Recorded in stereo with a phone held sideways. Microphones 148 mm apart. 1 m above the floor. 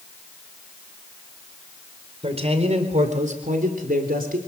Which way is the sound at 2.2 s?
40° right (ahead or behind).